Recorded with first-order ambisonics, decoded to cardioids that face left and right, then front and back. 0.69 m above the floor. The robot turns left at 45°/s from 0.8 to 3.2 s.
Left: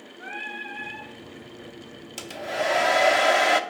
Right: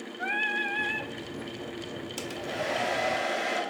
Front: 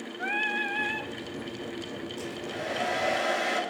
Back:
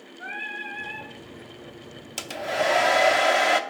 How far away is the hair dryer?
About 0.6 m.